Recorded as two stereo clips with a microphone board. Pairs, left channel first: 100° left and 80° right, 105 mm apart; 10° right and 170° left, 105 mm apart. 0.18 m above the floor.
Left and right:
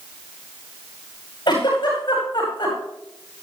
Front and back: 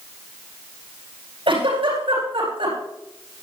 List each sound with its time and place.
1.5 s a giggle: 145° left, 9.5 m